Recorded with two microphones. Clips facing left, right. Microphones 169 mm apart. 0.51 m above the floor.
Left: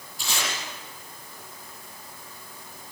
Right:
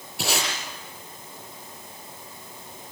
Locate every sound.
0.2 s tape being pulled: 80° right, 8 m